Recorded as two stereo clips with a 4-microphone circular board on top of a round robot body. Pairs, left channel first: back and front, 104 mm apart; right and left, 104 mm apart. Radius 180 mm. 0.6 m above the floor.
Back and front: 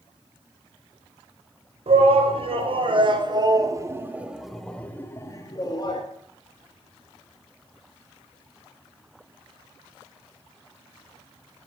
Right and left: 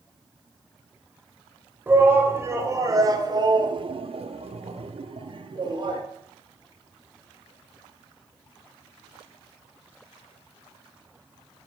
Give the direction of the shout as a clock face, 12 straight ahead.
11 o'clock.